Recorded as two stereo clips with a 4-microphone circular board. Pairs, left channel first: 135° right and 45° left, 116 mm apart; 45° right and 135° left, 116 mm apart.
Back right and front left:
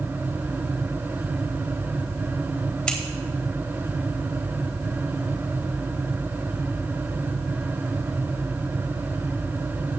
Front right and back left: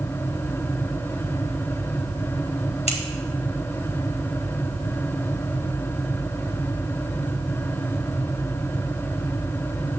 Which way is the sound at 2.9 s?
50° right.